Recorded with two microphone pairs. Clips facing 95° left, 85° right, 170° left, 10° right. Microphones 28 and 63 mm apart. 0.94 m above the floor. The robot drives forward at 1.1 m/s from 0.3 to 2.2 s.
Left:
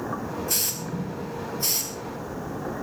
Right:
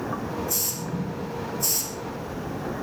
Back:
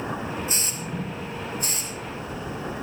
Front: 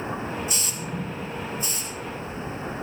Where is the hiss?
115° left, 2.0 m; by 1.9 s 145° left, 3 m.